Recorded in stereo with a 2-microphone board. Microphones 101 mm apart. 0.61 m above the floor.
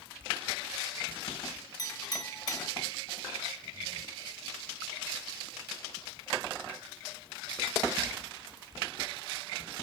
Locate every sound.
1.8 s a clink: 35° left (ahead or behind), 3.5 m